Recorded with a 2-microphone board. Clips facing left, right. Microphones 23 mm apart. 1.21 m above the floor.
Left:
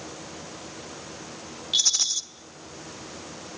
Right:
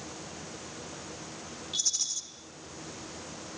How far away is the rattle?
About 1.2 m.